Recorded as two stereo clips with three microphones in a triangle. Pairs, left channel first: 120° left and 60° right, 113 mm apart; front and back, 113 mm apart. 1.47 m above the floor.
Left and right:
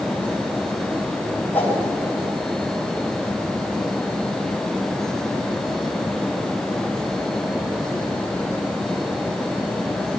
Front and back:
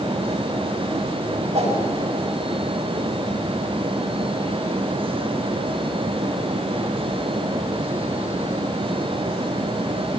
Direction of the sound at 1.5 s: 165° right.